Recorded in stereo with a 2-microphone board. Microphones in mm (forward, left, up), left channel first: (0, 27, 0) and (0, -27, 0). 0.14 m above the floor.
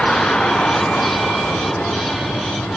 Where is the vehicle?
15° left (ahead or behind); by 2.8 s 20° left (ahead or behind).